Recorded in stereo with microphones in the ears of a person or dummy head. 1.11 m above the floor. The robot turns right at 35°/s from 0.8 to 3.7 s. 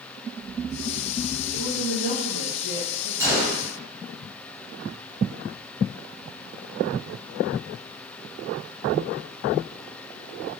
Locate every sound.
1.5 s a woman speaking: 140° right, 1.7 m; by 3.1 s 85° right, 1.7 m
3.2 s a gunshot: 10° right (ahead or behind), 0.8 m; by 3.6 s 25° right (ahead or behind), 0.8 m